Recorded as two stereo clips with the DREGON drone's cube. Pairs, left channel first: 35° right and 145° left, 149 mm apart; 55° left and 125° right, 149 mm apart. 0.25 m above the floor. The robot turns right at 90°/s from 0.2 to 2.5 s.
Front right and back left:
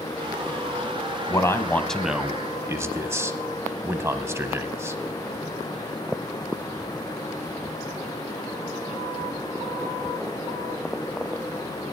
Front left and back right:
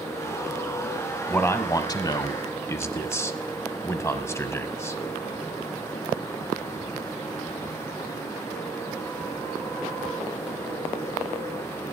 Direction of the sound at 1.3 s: 10° right.